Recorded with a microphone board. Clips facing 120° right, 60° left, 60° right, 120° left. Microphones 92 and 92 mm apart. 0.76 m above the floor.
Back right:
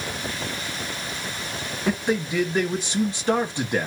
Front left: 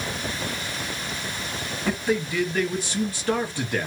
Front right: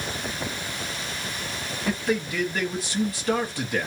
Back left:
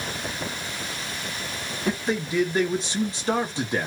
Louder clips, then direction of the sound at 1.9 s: Back right 1 dB, even; straight behind.